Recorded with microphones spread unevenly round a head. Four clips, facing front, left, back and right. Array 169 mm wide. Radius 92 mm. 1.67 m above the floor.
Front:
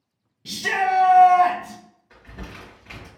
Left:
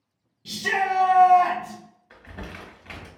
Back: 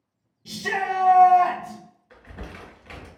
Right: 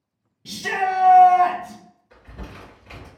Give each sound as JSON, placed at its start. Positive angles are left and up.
{"t": 0.5, "sound": "a shout", "azimuth_deg": -15, "distance_m": 0.6}
{"t": 2.1, "sound": "crumpling", "azimuth_deg": 80, "distance_m": 1.6}